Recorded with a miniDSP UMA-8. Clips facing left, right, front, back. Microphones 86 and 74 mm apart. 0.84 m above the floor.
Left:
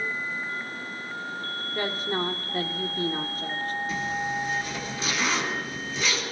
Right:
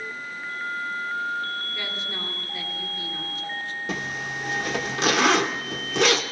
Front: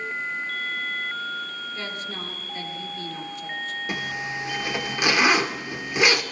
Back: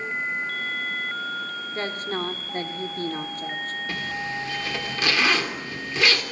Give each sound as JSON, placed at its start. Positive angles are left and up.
{"t": 1.8, "sound": "a woman speaking", "azimuth_deg": 135, "distance_m": 2.0}
{"t": 3.9, "sound": "a zipper", "azimuth_deg": -70, "distance_m": 2.0}